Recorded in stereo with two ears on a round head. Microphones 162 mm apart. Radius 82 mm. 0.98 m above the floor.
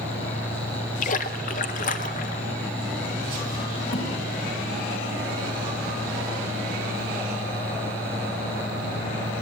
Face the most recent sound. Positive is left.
turn(degrees=75)  # may be behind; listen again after turning